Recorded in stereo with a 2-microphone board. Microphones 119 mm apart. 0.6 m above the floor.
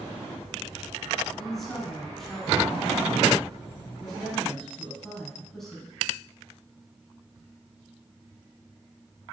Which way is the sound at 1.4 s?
Centre (ahead or behind).